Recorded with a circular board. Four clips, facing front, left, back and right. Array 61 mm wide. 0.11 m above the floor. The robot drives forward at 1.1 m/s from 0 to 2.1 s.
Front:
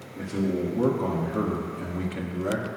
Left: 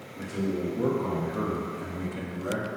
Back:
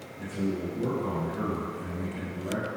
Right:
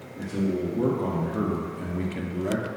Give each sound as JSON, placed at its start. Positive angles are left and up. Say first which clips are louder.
{"t": 0.1, "sound": "a man speaking", "louder": "right 3 dB, front 4 dB", "azimuth_deg": -20, "distance_m": 3.5}